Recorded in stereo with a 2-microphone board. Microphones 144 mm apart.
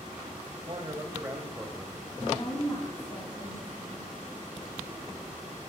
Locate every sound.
0.7 s a man speaking: 30° right (ahead or behind), 3 m; by 2.1 s 5° left (ahead or behind), 2.5 m
2.2 s a woman speaking: 35° left (ahead or behind), 4.5 m